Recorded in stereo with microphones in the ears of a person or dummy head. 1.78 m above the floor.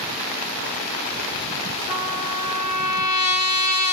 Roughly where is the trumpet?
Left.